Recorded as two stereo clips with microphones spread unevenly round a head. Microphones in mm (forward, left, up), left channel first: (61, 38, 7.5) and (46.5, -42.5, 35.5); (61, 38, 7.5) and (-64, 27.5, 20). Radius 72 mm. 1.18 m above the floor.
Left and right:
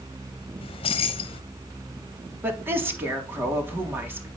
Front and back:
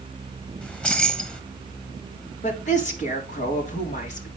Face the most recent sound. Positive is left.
turn(degrees=-30)